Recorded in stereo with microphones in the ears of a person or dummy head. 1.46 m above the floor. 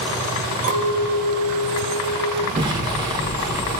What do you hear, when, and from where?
0.6 s a clink: 55° right (ahead or behind), 1.8 m
2.6 s an explosion: 20° right (ahead or behind), 1.2 m